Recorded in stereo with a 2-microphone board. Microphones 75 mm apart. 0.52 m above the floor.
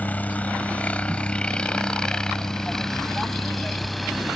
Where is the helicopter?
25° left (ahead or behind); by 4.4 s centre (ahead or behind).